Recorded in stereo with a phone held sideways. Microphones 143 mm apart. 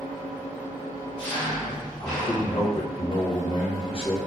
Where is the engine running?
5° left (ahead or behind), 1.7 m.